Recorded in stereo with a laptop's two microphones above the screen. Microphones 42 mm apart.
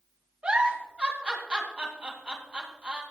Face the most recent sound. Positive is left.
turn(degrees=-30)  # may be behind; listen again after turning